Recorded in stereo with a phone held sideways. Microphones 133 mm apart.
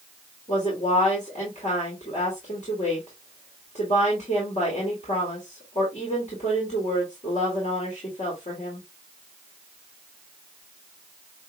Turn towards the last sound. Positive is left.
turn(degrees=60)  # may be behind; listen again after turning